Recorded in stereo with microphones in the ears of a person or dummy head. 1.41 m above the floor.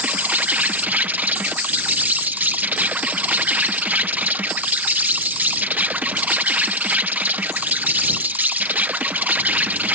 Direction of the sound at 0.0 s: Centre (ahead or behind).